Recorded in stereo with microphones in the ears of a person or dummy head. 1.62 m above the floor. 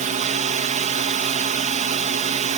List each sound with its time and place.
0.0 s a drone: 35° right (ahead or behind)